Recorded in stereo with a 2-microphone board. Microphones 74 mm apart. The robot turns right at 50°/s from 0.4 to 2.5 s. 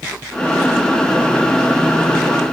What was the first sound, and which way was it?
Only background noise.